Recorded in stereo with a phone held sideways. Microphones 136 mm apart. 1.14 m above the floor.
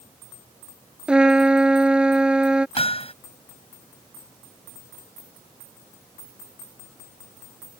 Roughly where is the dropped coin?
No dropped coin in this recording.